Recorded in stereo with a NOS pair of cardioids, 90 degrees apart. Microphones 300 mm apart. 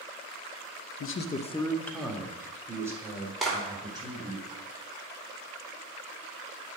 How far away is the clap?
About 4.5 m.